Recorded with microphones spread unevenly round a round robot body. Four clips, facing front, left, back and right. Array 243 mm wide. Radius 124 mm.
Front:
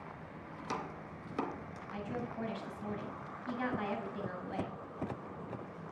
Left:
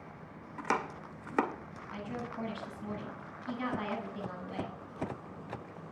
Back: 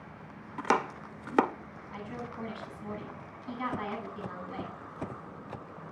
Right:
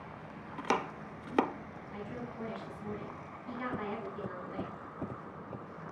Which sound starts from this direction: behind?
Chopping, at 0.6 s.